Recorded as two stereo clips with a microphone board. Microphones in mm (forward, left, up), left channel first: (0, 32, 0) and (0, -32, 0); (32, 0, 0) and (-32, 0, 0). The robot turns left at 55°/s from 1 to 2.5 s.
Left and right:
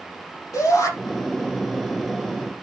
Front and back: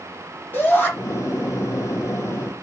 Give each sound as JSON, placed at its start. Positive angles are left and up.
{"t": 0.5, "sound": "a shout", "azimuth_deg": 60, "distance_m": 6.0}